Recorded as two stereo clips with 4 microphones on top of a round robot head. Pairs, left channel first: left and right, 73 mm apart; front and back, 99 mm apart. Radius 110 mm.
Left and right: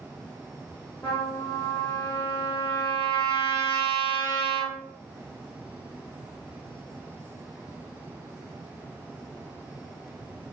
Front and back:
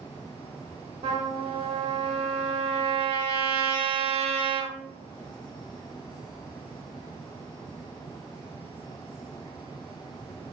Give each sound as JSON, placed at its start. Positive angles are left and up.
{"t": 1.0, "sound": "a trumpet", "azimuth_deg": 165, "distance_m": 0.6}